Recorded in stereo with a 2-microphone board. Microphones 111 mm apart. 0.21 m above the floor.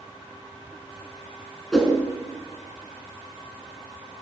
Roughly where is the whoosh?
Centre.